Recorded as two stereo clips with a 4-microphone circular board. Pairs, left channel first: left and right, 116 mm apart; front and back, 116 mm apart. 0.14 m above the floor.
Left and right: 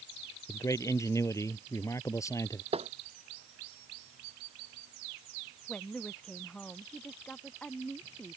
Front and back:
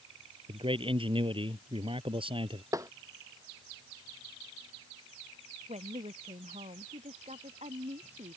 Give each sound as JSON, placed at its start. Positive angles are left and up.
{"t": 0.5, "sound": "a man speaking", "azimuth_deg": 150}
{"t": 2.7, "sound": "tapping", "azimuth_deg": -120}
{"t": 5.7, "sound": "a woman speaking", "azimuth_deg": 170}